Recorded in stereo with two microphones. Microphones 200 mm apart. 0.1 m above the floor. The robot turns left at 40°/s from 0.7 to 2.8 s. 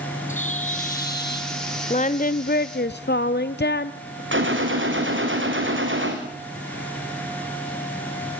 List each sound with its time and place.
0.3 s a bird: 140° left, 3 m; by 1.6 s 105° left, 3 m
1.9 s singing: 140° left, 0.7 m; by 4.2 s 105° left, 0.7 m
4.3 s a gunshot: 75° right (ahead or behind), 3.5 m